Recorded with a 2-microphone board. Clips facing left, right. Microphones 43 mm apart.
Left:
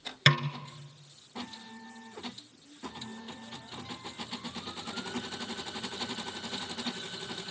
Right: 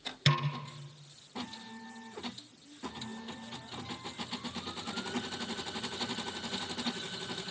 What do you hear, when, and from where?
0.3 s a snare drum: 65° left (ahead or behind), 1.7 m